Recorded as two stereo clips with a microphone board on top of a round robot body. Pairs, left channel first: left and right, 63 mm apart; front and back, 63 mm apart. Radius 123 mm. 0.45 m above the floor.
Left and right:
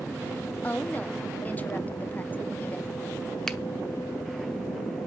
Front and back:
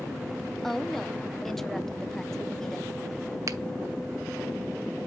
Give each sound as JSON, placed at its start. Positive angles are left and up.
{"t": 0.6, "sound": "a woman speaking", "azimuth_deg": 80, "distance_m": 0.9}
{"t": 3.5, "sound": "a finger snap", "azimuth_deg": 170, "distance_m": 0.9}